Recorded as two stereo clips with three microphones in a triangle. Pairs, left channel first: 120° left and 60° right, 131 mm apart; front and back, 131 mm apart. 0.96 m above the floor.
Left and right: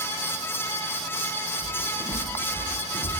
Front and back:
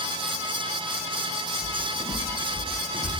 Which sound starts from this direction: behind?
Footsteps, at 1.6 s.